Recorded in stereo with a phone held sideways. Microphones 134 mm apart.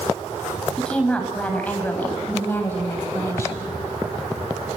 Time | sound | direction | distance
0.8 | a woman speaking | 5° left (ahead or behind) | 8.5 m